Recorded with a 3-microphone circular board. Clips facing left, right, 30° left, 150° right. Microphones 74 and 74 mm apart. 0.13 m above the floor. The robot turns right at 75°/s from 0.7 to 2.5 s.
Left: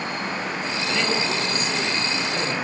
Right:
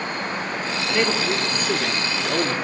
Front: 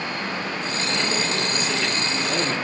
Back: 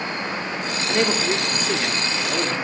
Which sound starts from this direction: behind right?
A man speaking, at 0.9 s.